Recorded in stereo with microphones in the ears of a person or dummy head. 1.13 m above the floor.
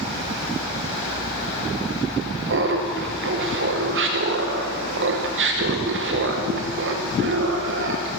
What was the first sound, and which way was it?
Laughter, 45° right (ahead or behind).